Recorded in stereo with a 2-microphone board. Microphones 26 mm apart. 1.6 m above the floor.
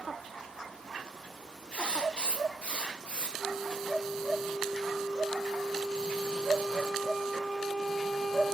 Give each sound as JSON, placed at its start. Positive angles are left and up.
{"t": 1.7, "sound": "writing", "side_deg": 45, "distance_m": 0.8}
{"t": 3.4, "sound": "a flute", "side_deg": 20, "distance_m": 0.9}